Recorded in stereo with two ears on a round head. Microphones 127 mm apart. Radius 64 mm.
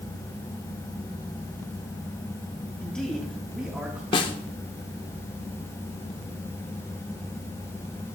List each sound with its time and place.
2.8 s a man speaking: 5° left (ahead or behind), 2.5 m; by 4.0 s 10° right (ahead or behind), 2.5 m
4.1 s a snare drum: 35° left (ahead or behind), 1.0 m